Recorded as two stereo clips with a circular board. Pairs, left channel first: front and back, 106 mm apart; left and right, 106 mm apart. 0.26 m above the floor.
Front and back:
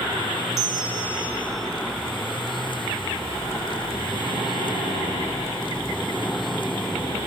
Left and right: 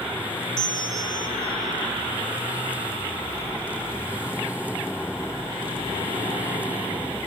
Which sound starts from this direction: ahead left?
A bell, at 0.6 s.